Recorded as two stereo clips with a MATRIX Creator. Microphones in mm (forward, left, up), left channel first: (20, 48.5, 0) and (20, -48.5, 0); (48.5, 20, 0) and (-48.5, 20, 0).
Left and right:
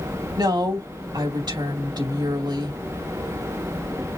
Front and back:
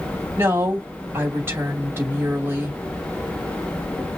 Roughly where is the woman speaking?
Behind right.